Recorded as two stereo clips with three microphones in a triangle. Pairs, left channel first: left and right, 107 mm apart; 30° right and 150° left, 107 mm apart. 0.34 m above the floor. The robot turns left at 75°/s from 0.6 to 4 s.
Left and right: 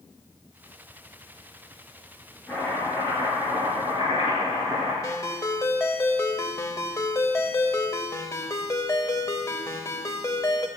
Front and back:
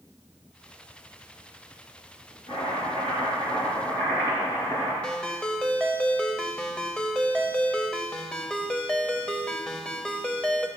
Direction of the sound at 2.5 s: 15° left.